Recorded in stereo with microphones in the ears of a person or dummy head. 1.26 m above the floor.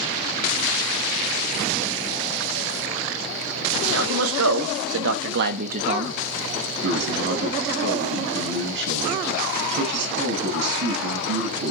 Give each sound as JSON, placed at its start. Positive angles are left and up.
{"t": 3.9, "sound": "a man speaking", "side_deg": -80, "distance_m": 2.5}
{"t": 6.8, "sound": "a man speaking", "side_deg": -65, "distance_m": 8.0}